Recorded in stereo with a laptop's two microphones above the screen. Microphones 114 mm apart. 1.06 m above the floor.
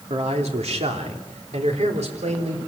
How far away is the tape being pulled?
I don't hear tape being pulled.